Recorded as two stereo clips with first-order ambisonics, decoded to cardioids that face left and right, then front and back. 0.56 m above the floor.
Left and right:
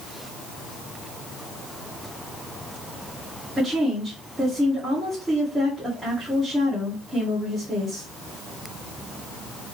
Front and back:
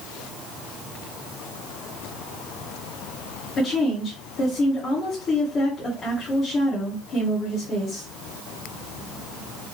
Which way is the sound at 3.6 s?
20° right.